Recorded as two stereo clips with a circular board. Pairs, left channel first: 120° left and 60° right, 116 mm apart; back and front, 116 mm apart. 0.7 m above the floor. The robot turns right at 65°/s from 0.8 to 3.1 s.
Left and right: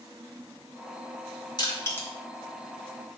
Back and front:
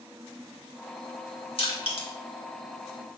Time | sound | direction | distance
1.6 | crushing | 160° left | 1.7 m